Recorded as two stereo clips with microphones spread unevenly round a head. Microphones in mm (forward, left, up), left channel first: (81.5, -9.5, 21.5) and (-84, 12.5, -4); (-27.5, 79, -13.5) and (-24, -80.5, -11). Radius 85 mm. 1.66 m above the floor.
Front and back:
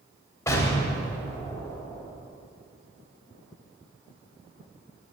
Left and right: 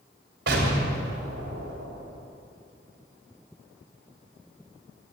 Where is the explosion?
80° right, 3 m.